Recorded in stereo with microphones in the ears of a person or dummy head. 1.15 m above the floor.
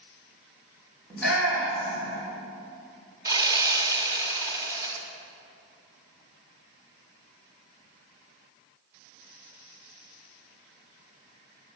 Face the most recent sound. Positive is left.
turn(degrees=-20)  # may be behind; listen again after turning